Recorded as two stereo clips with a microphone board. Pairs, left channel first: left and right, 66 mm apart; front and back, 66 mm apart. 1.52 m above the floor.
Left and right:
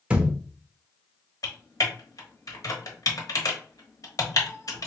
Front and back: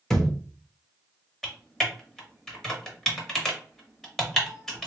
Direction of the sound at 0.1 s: 70° right.